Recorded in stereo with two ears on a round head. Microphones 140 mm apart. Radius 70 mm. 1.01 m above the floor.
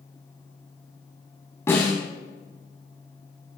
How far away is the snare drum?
About 7.5 m.